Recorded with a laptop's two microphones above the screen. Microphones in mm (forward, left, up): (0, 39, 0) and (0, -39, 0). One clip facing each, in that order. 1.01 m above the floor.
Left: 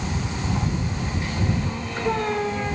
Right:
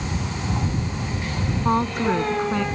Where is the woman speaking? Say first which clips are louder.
Right 5 dB; 75° right (ahead or behind); by 2.6 s 80° right.